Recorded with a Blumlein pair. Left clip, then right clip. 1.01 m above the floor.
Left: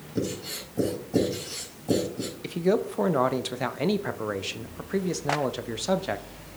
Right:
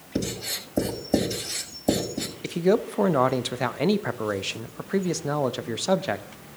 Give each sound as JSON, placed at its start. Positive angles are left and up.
{"t": 0.1, "sound": "writing", "azimuth_deg": -55, "distance_m": 5.5}
{"t": 2.4, "sound": "a man speaking", "azimuth_deg": -10, "distance_m": 0.7}